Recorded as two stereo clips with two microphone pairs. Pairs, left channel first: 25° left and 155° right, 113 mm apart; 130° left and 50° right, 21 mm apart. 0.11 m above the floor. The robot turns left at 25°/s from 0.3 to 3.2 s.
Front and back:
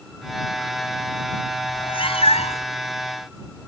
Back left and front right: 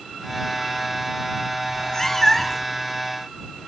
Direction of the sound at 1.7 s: 75° left.